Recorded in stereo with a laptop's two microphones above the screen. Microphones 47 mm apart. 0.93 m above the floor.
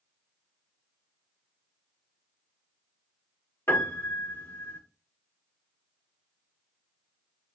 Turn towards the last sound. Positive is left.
turn(degrees=65)  # may be behind; listen again after turning